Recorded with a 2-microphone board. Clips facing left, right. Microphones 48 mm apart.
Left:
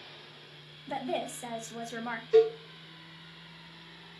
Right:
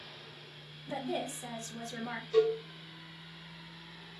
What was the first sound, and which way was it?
A woman speaking, 30° left (ahead or behind).